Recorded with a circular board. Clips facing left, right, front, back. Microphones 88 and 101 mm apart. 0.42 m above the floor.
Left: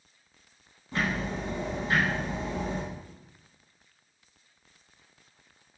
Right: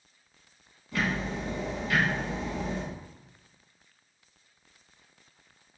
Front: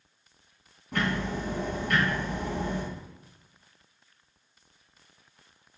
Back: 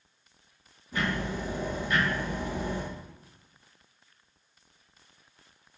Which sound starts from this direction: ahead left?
Ticking, at 0.9 s.